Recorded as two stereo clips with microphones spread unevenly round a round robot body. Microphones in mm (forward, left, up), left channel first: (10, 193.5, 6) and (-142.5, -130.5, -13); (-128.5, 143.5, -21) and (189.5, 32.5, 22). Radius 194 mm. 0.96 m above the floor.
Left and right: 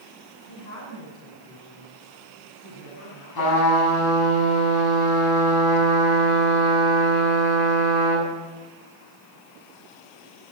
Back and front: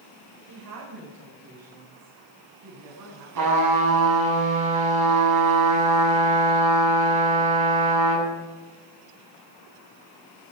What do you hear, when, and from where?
0.5 s a woman speaking: 5° left, 3.5 m; by 3.2 s 10° left, 8 m
3.4 s a trumpet: 15° left, 8 m